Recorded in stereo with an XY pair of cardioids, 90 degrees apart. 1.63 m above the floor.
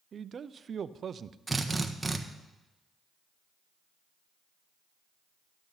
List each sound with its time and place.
0.1 s a man speaking: 50° right, 0.7 m
1.5 s a drill: 20° right, 1.4 m